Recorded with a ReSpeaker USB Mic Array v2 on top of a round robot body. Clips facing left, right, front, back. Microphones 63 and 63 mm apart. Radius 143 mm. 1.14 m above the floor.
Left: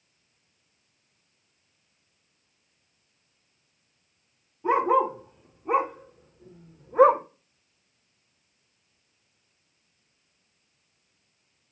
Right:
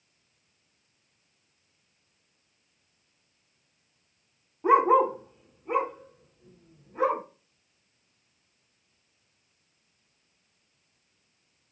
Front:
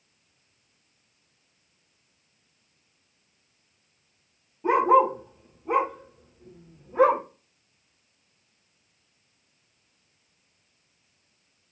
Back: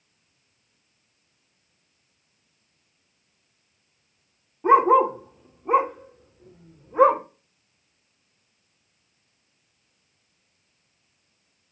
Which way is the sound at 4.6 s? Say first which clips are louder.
Right 2 dB, back 3 dB; 125° right.